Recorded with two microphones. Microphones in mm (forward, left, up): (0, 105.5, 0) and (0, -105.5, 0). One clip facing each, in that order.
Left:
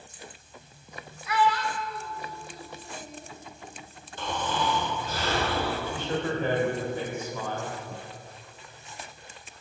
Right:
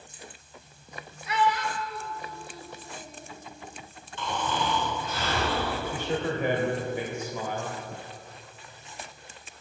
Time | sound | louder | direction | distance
1.3 | a child speaking | left 1 dB | 25° right (ahead or behind) | 0.9 m
4.2 | snoring | even | 40° left (ahead or behind) | 1.8 m
5.9 | a man speaking | even | 15° right (ahead or behind) | 1.4 m